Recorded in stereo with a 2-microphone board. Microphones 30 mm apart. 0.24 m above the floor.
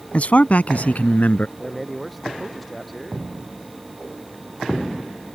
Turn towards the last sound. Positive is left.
turn(degrees=5)  # may be behind; listen again after turning